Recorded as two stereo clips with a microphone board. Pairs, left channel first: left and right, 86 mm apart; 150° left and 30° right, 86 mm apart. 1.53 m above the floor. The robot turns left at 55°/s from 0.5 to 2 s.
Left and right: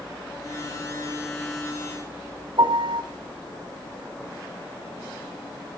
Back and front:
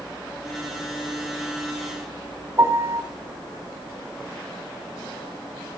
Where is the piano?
90° right, 3 m.